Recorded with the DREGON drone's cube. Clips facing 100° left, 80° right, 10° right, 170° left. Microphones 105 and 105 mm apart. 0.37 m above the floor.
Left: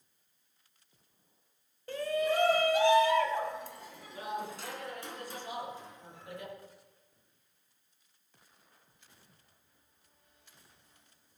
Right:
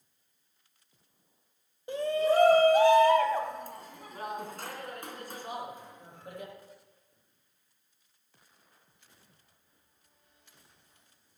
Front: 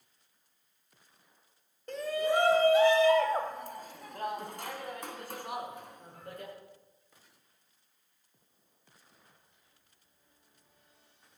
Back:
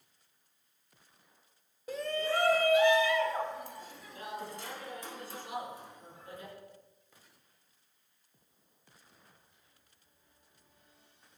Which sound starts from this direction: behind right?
A shout, at 1.9 s.